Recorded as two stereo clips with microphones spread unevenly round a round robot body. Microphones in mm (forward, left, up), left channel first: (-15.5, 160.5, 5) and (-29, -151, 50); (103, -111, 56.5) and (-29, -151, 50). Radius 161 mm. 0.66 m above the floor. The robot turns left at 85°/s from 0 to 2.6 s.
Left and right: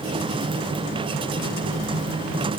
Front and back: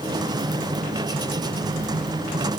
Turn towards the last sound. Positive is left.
No sound to turn to.